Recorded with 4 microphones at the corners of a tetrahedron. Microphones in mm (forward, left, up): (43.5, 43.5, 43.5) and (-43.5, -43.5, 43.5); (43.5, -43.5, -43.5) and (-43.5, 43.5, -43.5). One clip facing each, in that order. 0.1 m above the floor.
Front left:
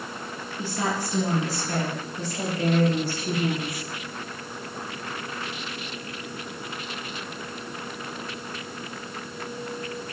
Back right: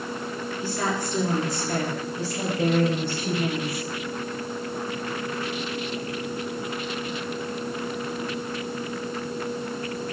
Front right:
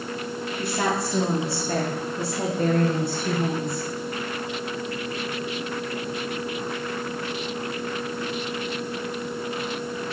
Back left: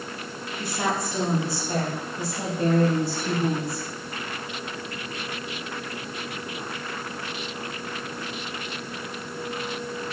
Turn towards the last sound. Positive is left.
turn(degrees=-80)